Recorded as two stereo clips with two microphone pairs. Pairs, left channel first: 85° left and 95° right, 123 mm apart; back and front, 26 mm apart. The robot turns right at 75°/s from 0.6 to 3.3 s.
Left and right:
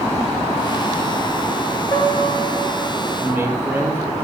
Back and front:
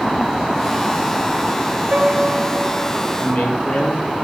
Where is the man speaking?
170° right, 7.5 m; by 4.2 s 165° right, 7.5 m.